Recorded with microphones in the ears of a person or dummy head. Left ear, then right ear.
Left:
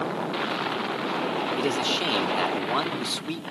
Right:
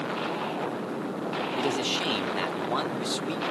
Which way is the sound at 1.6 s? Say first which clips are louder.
Left 1 dB; centre (ahead or behind).